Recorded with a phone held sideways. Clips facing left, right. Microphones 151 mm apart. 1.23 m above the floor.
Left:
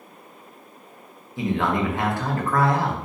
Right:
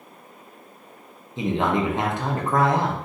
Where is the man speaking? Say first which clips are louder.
Right 1 dB; 20° right (ahead or behind), 0.7 m.